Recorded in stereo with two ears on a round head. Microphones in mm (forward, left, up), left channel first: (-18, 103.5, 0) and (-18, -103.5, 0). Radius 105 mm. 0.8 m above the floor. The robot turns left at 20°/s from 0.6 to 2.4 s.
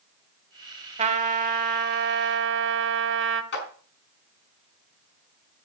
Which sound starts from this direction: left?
A clap, at 3.5 s.